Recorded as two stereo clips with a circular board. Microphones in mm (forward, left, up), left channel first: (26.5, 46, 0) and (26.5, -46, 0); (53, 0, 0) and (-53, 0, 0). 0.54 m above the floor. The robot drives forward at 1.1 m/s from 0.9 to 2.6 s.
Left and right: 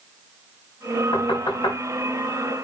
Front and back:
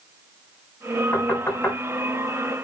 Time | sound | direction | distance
1.1 | knocking | 70° left | 4 m